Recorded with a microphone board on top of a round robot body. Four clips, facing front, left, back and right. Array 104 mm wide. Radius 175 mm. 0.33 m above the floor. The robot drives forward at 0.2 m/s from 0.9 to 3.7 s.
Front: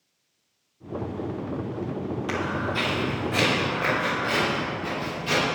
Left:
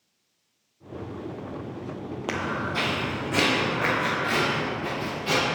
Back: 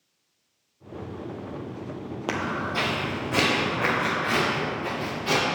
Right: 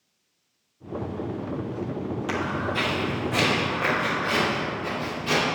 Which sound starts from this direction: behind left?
Footsteps, at 2.3 s.